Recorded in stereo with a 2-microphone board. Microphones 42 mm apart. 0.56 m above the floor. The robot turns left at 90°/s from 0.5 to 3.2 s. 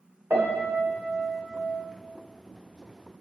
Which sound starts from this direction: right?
A piano, at 0.3 s.